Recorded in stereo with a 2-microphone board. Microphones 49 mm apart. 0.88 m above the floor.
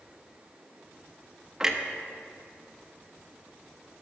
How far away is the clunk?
About 0.8 m.